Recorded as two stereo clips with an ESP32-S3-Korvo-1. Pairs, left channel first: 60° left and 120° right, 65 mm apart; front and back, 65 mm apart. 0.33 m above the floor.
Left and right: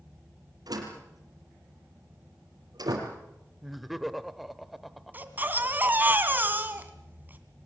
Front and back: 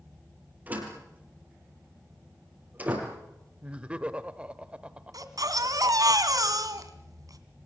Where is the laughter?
155° left, 0.8 m.